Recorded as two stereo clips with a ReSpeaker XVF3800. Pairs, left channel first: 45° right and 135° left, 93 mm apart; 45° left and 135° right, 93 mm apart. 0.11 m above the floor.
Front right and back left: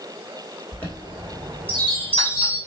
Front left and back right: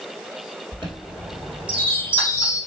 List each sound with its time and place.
0.7 s a chime: 120° right, 2 m